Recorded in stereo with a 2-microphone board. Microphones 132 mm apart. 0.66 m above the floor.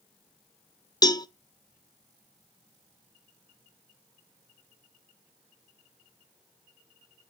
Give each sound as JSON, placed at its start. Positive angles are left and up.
{"t": 1.0, "sound": "a cowbell", "side_deg": 30, "distance_m": 0.5}